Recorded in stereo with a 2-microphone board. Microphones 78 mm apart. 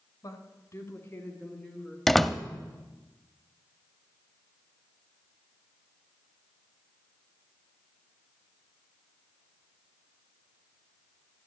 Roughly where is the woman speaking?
Left.